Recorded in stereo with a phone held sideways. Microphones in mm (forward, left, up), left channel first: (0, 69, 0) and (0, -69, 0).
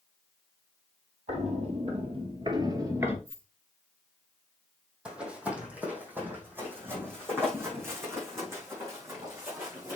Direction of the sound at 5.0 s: 10° right (ahead or behind).